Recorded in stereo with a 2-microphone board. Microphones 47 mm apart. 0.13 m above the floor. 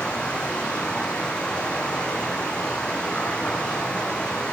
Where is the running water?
25° left (ahead or behind), 7.5 m.